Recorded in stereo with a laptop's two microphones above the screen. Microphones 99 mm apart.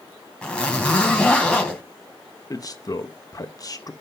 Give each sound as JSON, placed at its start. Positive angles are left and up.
{"t": 0.4, "sound": "a zipper", "side_deg": 10, "distance_m": 3.0}
{"t": 2.5, "sound": "a man speaking", "side_deg": 40, "distance_m": 0.8}